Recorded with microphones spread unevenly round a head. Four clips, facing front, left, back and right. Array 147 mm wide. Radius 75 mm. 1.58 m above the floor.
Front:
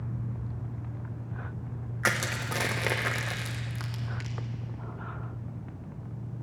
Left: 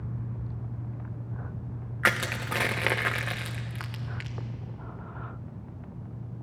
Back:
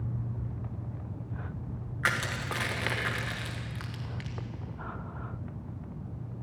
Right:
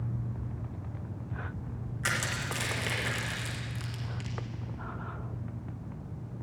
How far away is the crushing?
About 1.9 m.